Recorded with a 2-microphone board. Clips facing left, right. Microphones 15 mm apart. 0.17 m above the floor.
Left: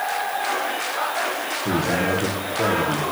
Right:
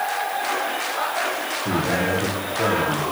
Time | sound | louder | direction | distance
1.6 | a man speaking | left 1 dB | 45° left (ahead or behind) | 4 m